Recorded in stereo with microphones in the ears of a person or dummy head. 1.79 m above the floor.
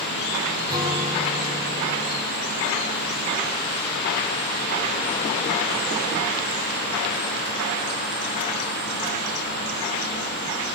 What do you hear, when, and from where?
0.7 s a guitar: 20° right (ahead or behind), 6.5 m